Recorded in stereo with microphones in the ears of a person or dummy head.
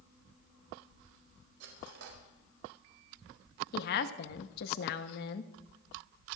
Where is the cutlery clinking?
65° right (ahead or behind), 4.5 m.